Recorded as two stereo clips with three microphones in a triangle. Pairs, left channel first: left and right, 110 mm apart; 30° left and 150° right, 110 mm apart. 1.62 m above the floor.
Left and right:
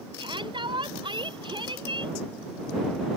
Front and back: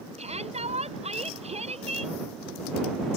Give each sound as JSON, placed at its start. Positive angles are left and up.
{"t": 0.2, "sound": "a shout", "azimuth_deg": -135}